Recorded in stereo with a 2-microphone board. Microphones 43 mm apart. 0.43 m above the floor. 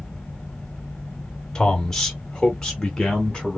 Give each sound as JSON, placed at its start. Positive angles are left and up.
{"t": 1.6, "sound": "a man speaking", "side_deg": 15, "distance_m": 1.1}